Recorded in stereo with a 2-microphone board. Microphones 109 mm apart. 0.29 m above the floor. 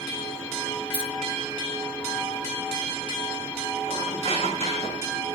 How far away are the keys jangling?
About 3.5 m.